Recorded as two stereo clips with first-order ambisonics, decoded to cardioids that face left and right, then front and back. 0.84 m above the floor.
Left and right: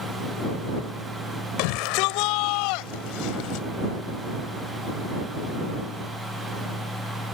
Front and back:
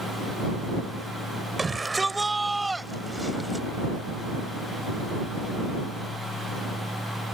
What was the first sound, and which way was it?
A shout, 100° left.